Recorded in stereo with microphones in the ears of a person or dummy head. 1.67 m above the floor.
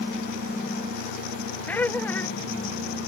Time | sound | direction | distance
1.7 | laughter | 15° left (ahead or behind) | ?